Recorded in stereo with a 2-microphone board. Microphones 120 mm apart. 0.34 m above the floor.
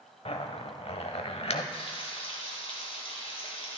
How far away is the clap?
I don't hear a clap.